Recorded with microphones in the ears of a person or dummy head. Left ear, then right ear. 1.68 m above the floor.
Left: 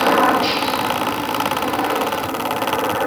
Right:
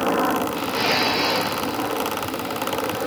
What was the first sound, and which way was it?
A helicopter, 65° left (ahead or behind).